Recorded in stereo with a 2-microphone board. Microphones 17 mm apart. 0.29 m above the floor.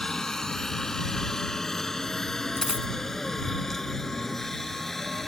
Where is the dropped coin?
75° left (ahead or behind).